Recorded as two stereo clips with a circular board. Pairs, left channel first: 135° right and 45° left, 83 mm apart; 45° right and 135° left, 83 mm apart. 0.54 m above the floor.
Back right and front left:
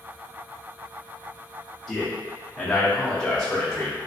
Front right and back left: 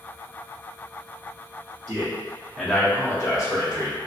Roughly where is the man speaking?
Behind left.